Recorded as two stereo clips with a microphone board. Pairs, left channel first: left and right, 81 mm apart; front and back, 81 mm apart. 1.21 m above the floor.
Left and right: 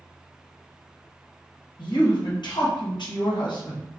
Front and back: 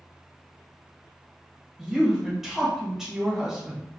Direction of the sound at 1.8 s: 95° left.